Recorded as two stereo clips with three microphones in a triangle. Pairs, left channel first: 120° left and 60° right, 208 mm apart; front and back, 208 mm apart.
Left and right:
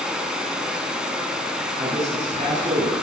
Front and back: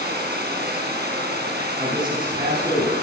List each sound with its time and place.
0.0 s running water: 145° right, 5.5 m
1.8 s a man speaking: 115° right, 9 m